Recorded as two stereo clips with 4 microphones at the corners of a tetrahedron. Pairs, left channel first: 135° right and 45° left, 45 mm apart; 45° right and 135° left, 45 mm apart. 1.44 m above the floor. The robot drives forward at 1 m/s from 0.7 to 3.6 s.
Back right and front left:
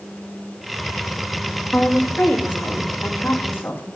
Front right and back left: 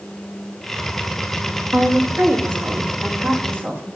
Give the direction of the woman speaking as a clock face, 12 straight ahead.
6 o'clock.